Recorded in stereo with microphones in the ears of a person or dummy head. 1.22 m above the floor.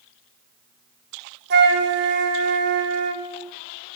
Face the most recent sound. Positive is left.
turn(degrees=-55)  # may be behind; listen again after turning